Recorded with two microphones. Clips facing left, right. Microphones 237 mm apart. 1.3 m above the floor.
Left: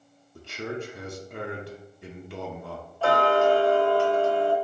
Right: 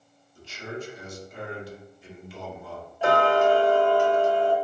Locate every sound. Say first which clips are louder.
0.3 s a man speaking: left 3 dB; 65° left (ahead or behind), 0.6 m
3.0 s ticking: even; 15° right (ahead or behind), 0.7 m